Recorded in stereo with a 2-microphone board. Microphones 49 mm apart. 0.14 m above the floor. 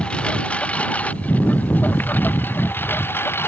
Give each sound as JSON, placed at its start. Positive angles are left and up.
{"t": 0.0, "sound": "a lawn mower", "side_deg": 20}